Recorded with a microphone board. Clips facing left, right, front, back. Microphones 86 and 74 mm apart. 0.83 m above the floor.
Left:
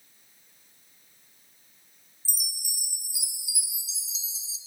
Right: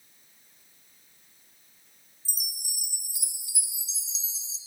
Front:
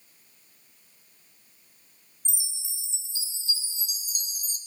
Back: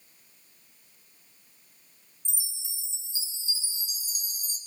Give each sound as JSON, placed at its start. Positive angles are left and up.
{"t": 2.2, "sound": "a chime", "azimuth_deg": 5, "distance_m": 0.8}